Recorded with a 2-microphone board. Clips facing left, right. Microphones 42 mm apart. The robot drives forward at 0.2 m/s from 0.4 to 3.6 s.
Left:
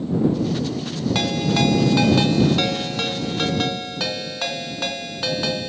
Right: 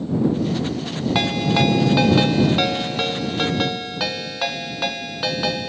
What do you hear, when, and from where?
1.1 s a ringtone: 15° right (ahead or behind), 0.8 m; by 5.7 s 10° right (ahead or behind), 1.1 m